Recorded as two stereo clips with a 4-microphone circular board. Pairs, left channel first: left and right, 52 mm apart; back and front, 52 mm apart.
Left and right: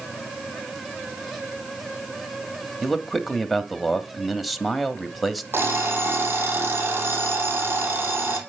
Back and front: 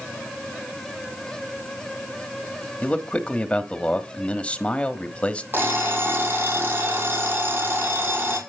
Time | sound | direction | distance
2.8 | a man speaking | straight behind | 1.0 m
5.5 | an alarm clock | 45° right | 3.5 m